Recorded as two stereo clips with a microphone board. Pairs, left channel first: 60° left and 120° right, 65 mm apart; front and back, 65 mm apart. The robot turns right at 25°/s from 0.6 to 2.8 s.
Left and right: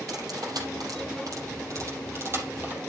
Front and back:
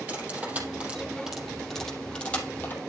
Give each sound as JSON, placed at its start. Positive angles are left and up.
{"t": 0.1, "sound": "cutlery clinking", "azimuth_deg": -115, "distance_m": 4.5}